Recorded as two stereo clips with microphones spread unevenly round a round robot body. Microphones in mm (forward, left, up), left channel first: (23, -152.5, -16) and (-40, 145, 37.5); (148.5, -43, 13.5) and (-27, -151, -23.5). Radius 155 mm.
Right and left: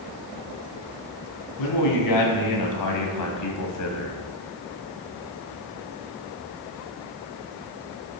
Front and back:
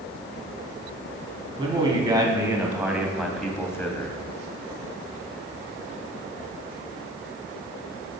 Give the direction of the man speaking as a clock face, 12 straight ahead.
3 o'clock.